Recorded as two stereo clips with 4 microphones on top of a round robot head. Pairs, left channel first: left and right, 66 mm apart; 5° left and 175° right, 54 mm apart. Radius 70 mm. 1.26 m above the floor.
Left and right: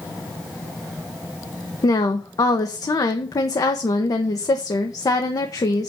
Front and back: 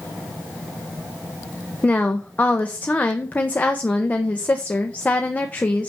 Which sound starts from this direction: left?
A woman speaking, at 1.8 s.